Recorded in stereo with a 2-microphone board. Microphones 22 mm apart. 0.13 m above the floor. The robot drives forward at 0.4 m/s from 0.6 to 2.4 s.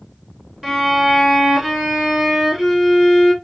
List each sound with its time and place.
0.6 s a violin: 20° right (ahead or behind), 1.4 m; by 3.3 s 15° right (ahead or behind), 1.8 m